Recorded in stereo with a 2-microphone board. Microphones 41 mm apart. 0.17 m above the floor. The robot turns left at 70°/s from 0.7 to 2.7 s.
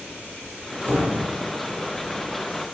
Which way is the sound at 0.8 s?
35° right (ahead or behind).